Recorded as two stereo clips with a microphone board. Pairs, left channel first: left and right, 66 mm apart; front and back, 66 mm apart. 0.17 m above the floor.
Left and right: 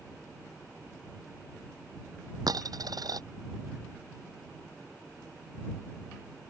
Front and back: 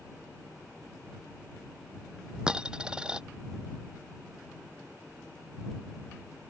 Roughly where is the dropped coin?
Right.